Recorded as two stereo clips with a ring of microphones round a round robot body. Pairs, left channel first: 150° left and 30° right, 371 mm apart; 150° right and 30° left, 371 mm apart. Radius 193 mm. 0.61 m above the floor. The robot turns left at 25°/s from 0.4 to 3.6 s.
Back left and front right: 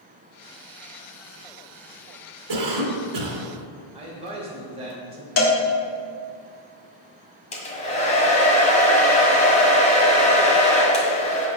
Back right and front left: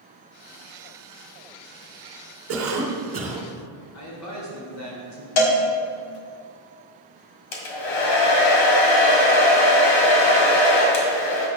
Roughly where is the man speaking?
Right.